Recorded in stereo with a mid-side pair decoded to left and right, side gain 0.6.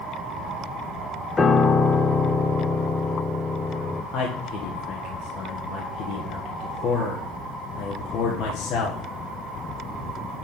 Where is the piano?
25° left, 0.9 m.